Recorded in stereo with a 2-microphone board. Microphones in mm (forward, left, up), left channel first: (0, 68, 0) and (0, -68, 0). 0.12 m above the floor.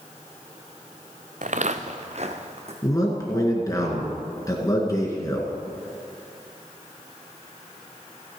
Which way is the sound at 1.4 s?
70° right (ahead or behind).